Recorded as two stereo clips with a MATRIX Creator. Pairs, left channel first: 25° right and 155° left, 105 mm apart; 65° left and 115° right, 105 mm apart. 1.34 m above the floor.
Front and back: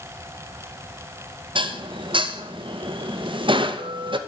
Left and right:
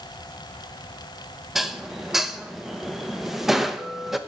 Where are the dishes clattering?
160° left, 0.6 m.